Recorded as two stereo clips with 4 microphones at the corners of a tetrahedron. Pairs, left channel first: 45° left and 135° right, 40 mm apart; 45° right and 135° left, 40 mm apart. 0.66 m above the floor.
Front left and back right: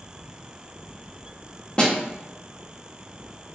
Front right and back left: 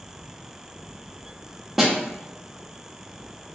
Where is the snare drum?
50° left, 0.8 m.